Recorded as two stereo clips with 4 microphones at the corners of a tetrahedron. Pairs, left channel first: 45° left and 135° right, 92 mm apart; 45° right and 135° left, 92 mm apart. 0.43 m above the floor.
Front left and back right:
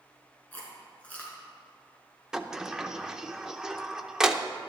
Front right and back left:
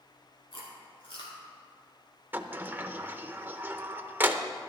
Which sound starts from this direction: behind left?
A sliding door, at 2.3 s.